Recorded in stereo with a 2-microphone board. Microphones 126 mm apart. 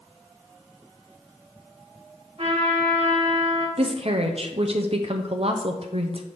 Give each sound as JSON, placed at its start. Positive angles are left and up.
{"t": 2.4, "sound": "a trumpet", "side_deg": -55, "distance_m": 1.5}
{"t": 3.8, "sound": "a woman speaking", "side_deg": -55, "distance_m": 0.6}